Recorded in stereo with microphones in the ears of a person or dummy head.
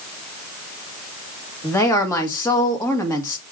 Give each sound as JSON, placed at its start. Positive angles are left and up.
{"t": 1.6, "sound": "a woman speaking", "side_deg": 15, "distance_m": 1.5}